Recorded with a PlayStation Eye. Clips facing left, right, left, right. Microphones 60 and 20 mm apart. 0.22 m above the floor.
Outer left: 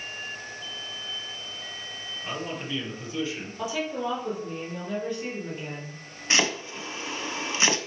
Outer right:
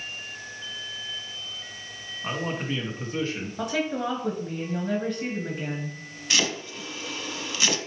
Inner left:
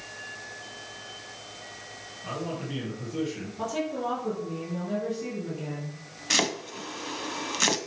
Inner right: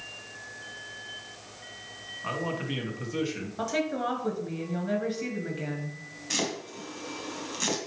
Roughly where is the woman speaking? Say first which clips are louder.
Outer right 2 dB, inner right 1 dB; right.